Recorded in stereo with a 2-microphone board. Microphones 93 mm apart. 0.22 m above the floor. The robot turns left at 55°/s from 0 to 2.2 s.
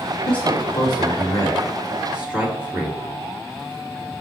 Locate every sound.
0.3 s a man speaking: 70° left (ahead or behind), 4.5 m; by 3.0 s 10° right (ahead or behind), 4.5 m